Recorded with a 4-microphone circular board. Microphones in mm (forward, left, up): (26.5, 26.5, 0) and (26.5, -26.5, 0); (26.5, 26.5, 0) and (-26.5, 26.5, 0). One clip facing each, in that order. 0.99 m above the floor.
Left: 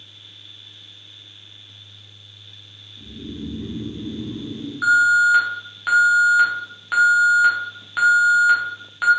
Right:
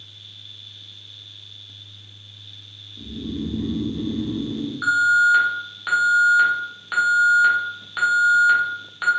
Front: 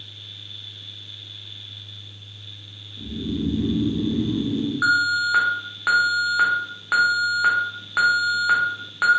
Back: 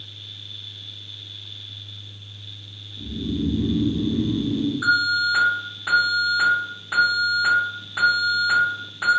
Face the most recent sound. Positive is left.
turn(degrees=10)